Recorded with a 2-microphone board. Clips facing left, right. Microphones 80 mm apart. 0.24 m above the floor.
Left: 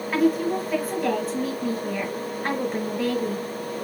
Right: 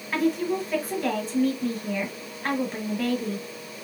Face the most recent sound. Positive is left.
turn(degrees=5)  # may be behind; listen again after turning